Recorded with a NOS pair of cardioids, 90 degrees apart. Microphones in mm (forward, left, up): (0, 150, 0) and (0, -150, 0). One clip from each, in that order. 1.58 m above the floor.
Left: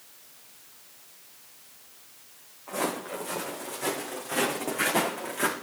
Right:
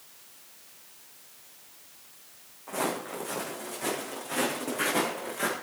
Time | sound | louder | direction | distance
2.7 | footsteps | left 1 dB | 5° right | 6.5 m